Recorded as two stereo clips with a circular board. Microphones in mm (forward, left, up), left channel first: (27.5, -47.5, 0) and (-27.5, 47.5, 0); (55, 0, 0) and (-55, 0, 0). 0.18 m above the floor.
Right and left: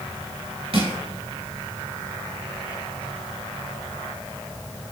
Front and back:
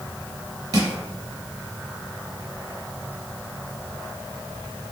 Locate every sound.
0.7 s crushing: 130° left, 3 m